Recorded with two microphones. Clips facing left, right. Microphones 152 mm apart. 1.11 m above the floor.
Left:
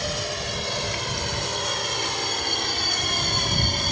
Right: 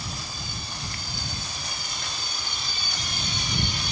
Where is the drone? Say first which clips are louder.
Left 9 dB; 75° left (ahead or behind); by 3.9 s 50° left (ahead or behind).